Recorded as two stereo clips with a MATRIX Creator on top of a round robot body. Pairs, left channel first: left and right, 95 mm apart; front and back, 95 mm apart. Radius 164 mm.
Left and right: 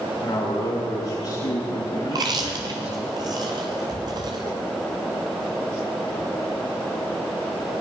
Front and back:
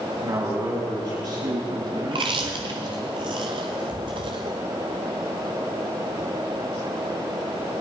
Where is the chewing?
140° right, 0.5 m.